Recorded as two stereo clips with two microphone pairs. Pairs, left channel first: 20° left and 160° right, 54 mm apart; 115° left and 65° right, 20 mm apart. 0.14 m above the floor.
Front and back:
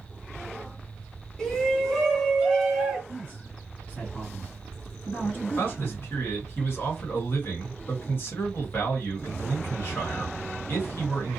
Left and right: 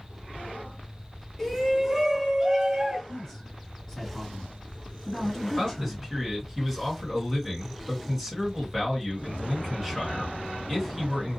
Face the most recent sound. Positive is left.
turn(degrees=25)